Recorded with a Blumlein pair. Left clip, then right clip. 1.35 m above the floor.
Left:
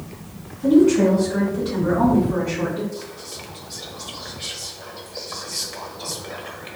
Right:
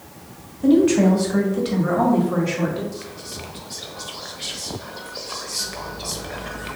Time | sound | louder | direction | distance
0.6 | a woman speaking | left 1 dB | 20° right | 1.2 m
2.9 | whispering | even | 5° right | 0.8 m